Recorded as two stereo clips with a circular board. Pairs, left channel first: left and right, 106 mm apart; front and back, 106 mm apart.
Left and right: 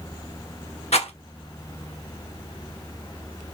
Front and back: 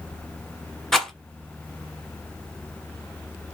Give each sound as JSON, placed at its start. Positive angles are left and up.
{"t": 0.9, "sound": "a rattle", "azimuth_deg": 90, "distance_m": 1.2}